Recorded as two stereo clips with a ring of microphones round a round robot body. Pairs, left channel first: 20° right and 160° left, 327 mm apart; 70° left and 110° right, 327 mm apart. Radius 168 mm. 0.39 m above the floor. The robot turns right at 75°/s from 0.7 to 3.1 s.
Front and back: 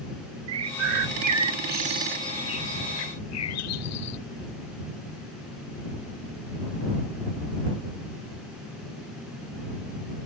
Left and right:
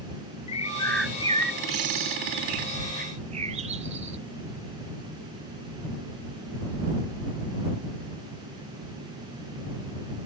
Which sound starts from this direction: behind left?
A bird, at 0.5 s.